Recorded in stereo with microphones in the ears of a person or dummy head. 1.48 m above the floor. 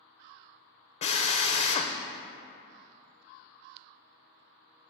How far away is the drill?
About 0.6 m.